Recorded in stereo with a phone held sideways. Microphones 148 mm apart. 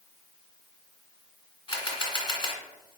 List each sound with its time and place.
1.7 s a camera shutter: 35° left (ahead or behind), 1.1 m